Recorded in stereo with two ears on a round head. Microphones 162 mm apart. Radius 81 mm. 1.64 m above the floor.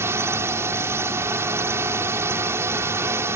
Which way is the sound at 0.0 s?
15° right (ahead or behind).